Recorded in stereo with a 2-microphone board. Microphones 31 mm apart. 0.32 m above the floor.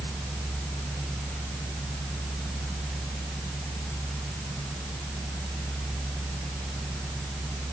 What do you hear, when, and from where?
Only background noise.